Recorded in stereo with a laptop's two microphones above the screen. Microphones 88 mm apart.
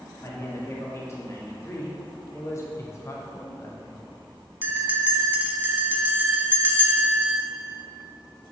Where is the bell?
20° right (ahead or behind), 0.8 m.